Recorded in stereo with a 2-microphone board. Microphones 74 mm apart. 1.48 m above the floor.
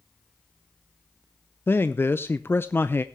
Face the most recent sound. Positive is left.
turn(degrees=30)  # may be behind; listen again after turning